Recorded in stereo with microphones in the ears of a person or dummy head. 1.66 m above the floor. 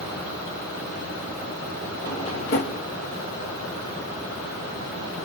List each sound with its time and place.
2.1 s a drawer: 30° left (ahead or behind), 1.1 m